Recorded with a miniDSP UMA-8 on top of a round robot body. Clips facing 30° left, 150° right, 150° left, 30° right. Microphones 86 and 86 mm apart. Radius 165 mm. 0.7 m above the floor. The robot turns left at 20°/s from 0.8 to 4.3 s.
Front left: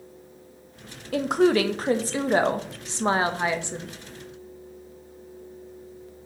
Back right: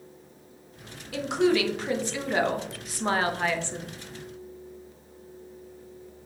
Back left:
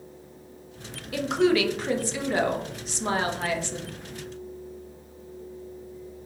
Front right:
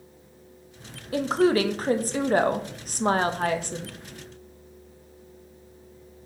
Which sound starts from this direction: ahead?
A woman speaking, at 1.1 s.